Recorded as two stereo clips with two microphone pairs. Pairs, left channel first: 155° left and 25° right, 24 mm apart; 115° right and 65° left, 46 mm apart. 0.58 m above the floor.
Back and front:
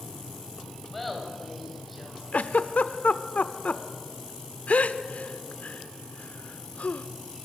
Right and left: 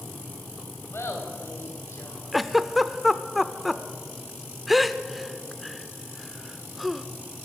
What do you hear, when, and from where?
0.9 s laughter: 125° right, 4 m; by 2.2 s 115° right, 5.5 m
2.3 s a giggle: 155° left, 0.8 m